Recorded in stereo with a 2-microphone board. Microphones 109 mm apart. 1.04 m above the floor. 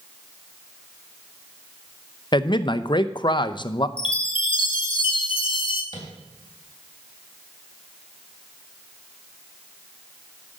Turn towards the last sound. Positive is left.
turn(degrees=40)  # may be behind; listen again after turning